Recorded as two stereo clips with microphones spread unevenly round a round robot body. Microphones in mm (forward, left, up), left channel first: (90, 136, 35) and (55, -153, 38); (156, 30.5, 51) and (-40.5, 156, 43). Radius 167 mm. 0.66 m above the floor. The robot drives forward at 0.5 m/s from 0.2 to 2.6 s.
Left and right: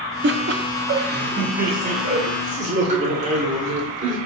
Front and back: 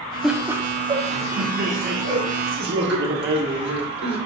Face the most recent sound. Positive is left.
turn(degrees=-165)